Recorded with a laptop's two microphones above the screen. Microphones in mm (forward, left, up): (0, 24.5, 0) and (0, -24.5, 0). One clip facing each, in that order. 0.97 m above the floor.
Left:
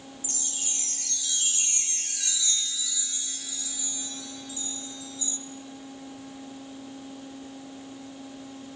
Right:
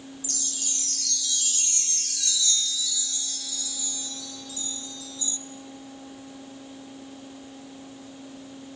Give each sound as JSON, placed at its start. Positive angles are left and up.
{"t": 0.2, "sound": "a chime", "side_deg": 25, "distance_m": 0.6}